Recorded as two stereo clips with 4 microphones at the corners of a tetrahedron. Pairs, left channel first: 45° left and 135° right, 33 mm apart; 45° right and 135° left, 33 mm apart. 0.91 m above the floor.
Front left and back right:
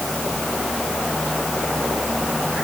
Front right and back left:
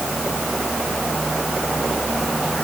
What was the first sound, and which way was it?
Only background noise.